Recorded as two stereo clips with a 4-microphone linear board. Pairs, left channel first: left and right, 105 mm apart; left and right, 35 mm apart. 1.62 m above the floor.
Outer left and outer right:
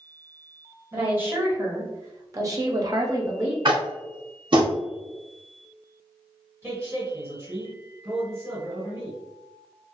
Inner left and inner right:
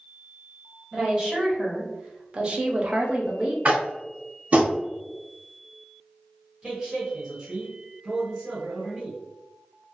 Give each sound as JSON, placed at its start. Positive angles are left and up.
{"t": 0.9, "sound": "a woman speaking", "side_deg": -20, "distance_m": 1.4}
{"t": 3.6, "sound": "tapping", "side_deg": -45, "distance_m": 0.7}
{"t": 6.6, "sound": "a man speaking", "side_deg": -25, "distance_m": 1.4}